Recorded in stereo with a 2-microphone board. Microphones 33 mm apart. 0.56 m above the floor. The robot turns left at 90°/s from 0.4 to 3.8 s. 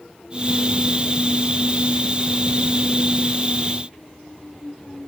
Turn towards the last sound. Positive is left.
No sound to turn to.